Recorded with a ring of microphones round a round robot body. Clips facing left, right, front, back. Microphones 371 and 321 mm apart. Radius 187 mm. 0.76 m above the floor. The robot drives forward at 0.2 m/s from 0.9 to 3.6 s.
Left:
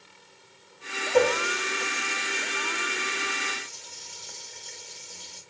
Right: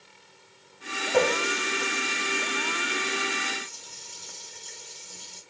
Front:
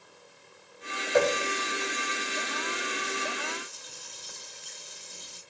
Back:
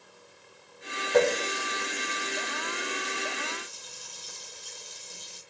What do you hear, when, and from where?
1.1 s a running tap: 125° right, 1.5 m; by 5.4 s 140° right, 1.8 m